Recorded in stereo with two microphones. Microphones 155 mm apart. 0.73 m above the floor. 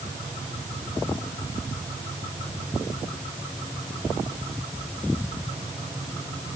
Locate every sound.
Only background noise.